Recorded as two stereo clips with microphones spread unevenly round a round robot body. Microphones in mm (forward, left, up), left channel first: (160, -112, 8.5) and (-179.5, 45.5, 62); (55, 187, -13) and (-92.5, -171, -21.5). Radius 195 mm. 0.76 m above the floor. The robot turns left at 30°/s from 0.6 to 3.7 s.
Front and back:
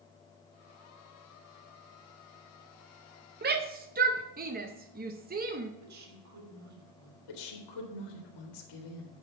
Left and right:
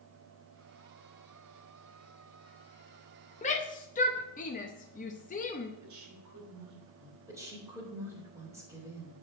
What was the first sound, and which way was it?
A shout, 115° left.